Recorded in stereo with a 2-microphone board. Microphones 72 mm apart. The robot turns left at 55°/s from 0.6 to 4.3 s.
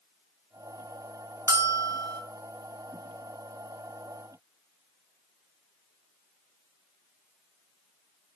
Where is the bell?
40° right, 2.5 m; by 2.2 s 80° right, 2.5 m.